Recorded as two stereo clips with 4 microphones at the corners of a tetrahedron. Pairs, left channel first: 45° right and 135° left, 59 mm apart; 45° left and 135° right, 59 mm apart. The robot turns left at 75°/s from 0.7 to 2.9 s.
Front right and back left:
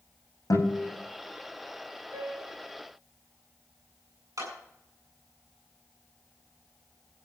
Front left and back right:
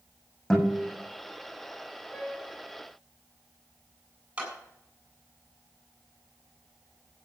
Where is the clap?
155° left, 7.5 m.